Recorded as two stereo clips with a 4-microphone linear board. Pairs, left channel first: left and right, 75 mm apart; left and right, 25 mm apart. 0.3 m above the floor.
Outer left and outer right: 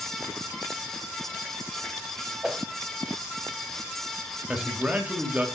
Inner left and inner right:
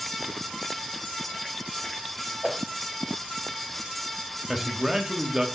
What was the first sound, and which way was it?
A whoosh, 10° right (ahead or behind).